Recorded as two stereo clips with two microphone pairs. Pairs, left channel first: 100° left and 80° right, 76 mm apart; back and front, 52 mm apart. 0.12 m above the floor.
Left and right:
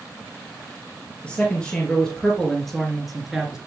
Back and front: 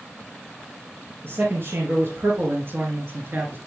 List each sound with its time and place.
1.2 s a man speaking: 25° left, 2.5 m; by 3.6 s 5° right, 1.9 m